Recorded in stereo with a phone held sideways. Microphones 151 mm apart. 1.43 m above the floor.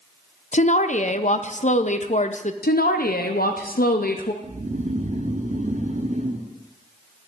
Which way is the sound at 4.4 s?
55° right (ahead or behind).